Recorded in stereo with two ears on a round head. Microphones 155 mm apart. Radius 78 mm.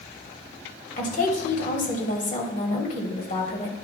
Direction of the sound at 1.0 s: 50° left (ahead or behind).